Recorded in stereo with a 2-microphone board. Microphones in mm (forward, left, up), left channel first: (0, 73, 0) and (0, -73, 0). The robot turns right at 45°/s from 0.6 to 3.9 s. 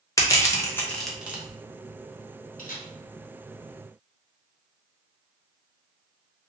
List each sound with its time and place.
0.2 s crushing: 25° left (ahead or behind), 0.7 m; by 1.4 s 15° right (ahead or behind), 0.7 m
2.6 s a camera shutter: 75° left (ahead or behind), 0.9 m; by 2.9 s 70° left (ahead or behind), 0.9 m